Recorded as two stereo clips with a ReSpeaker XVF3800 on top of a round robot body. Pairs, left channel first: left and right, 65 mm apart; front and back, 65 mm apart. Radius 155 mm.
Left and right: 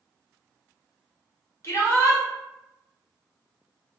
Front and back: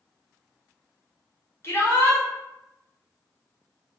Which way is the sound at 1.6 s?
45° left.